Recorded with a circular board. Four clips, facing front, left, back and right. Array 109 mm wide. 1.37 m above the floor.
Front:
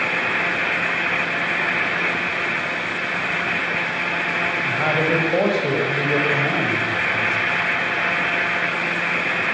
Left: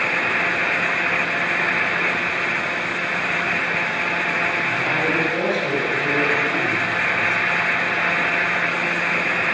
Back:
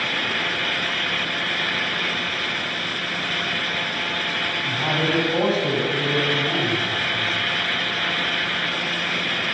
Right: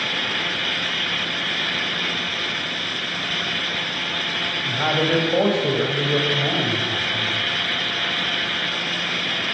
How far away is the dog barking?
No dog barking in this recording.